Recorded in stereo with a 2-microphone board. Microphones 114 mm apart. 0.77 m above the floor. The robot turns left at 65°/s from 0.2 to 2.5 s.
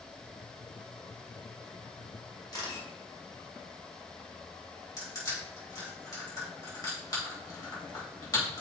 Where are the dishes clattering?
No dishes clattering in this recording.